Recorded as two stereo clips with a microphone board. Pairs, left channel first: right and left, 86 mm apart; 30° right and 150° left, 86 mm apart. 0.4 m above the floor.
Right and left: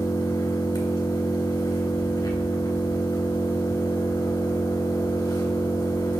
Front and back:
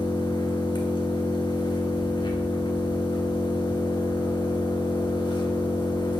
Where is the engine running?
55° right, 1.5 m.